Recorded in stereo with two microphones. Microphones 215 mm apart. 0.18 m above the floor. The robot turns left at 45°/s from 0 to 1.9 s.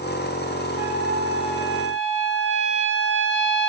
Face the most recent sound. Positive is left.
turn(degrees=-95)